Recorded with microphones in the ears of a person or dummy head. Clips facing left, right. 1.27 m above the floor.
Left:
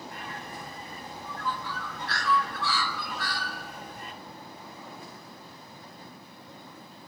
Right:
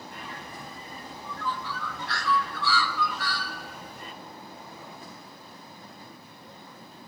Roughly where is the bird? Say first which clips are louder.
Left 1 dB; left.